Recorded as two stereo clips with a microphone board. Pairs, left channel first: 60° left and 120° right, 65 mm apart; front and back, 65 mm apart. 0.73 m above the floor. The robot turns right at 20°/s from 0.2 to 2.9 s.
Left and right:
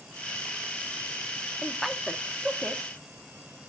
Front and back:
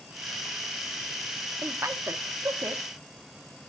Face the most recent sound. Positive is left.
turn(degrees=170)